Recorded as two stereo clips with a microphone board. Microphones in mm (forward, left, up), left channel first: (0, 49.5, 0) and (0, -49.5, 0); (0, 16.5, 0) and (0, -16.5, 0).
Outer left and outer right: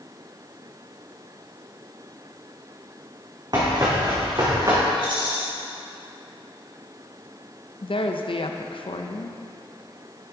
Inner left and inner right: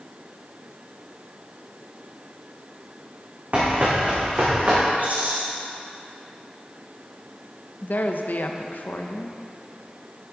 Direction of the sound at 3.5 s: 45° right (ahead or behind).